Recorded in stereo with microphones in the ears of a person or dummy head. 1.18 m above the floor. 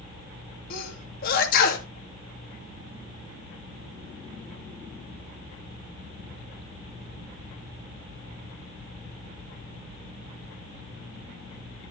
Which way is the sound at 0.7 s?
55° left (ahead or behind).